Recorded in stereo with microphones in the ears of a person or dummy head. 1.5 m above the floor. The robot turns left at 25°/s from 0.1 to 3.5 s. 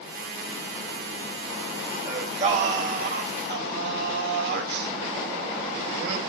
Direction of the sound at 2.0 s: 30° right.